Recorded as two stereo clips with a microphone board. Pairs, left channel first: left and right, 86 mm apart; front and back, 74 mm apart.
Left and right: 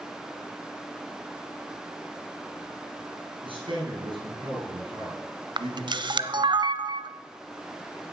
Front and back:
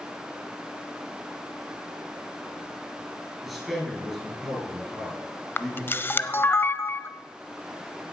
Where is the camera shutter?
65° right, 0.7 m.